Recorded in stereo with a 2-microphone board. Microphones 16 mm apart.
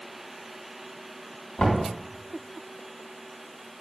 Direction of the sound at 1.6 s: 80° left.